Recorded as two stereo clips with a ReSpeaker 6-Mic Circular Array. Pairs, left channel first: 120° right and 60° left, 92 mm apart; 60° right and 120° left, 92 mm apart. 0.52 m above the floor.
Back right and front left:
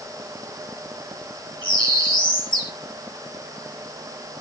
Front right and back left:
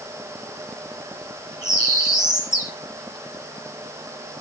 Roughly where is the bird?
Behind.